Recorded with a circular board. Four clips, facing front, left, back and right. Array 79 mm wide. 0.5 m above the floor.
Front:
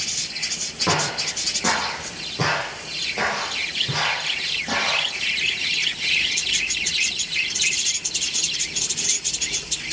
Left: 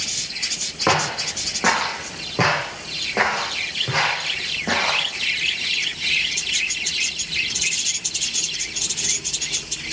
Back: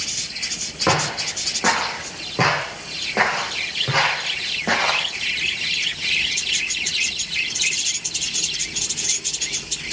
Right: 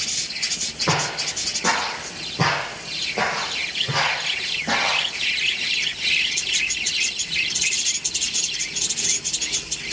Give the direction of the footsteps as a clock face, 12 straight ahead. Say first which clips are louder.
Left 4 dB, back 3 dB; 8 o'clock.